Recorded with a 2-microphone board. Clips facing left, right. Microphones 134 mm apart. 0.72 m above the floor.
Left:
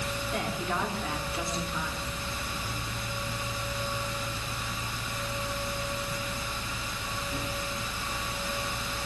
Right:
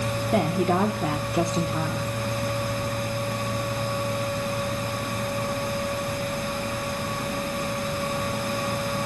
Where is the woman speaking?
60° right (ahead or behind), 1.3 m.